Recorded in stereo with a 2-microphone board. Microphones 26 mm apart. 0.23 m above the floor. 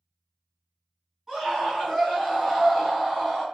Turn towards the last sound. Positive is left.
turn(degrees=10)  # may be behind; listen again after turning